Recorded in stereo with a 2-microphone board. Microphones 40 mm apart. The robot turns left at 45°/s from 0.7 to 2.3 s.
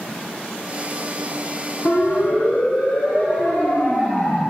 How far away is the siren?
About 6 m.